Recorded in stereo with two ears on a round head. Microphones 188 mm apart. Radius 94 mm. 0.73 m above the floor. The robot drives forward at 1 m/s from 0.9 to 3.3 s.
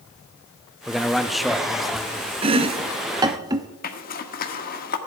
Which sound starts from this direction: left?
A zipper, at 3.8 s.